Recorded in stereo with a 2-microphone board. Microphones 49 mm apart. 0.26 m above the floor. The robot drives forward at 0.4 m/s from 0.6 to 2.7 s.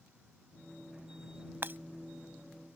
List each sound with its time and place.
1.6 s breaking glass: 50° right (ahead or behind)